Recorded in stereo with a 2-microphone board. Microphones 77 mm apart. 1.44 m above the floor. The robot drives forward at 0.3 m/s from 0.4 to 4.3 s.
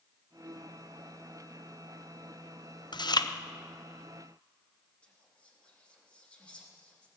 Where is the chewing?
70° left (ahead or behind), 0.5 m; by 3.3 s 60° left (ahead or behind), 0.6 m.